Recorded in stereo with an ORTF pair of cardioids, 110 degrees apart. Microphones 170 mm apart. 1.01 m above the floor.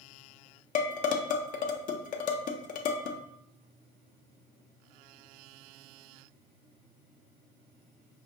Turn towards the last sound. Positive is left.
turn(degrees=50)